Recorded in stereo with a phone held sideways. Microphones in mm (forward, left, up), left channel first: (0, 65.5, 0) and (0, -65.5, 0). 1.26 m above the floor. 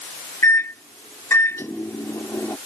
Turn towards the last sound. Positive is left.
turn(degrees=20)  # may be behind; listen again after turning